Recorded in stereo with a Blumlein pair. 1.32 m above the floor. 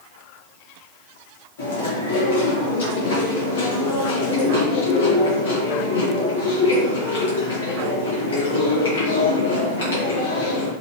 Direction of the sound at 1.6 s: 60° left.